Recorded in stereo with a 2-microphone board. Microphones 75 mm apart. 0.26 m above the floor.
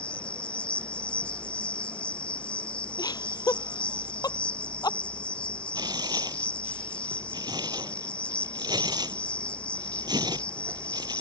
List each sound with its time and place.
0.0 s an insect: 15° left (ahead or behind)
3.0 s laughter: 60° left (ahead or behind)
5.8 s tearing paper: 70° right (ahead or behind)